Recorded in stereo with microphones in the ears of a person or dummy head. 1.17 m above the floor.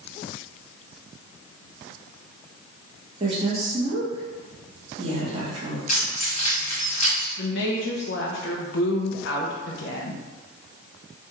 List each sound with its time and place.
3.2 s a woman speaking: 35° right (ahead or behind), 1.3 m
5.9 s keys jangling: 50° left (ahead or behind), 1.4 m
7.4 s a woman speaking: 60° left (ahead or behind), 0.8 m